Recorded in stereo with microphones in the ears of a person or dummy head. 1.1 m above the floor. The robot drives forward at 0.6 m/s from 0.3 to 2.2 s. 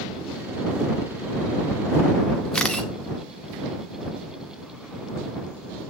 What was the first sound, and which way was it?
A camera shutter, 10° left (ahead or behind).